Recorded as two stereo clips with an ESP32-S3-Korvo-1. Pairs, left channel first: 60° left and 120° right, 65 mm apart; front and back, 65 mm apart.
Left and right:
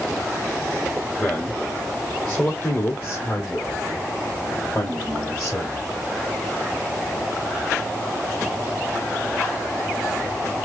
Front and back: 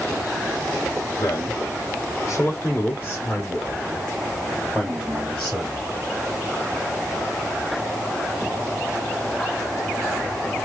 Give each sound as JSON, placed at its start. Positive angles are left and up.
{"t": 1.2, "sound": "a man speaking", "azimuth_deg": -25, "distance_m": 1.4}